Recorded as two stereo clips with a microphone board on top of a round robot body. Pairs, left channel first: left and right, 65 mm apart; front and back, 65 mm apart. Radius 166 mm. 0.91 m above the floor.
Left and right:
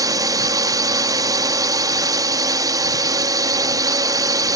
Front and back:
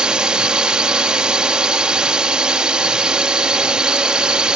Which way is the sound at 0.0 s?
105° right.